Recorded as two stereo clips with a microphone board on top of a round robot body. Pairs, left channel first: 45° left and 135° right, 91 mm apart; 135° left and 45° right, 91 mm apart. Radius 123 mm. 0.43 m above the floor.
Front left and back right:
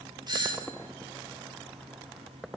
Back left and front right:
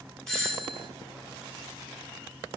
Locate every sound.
0.3 s a doorbell: 145° right, 1.8 m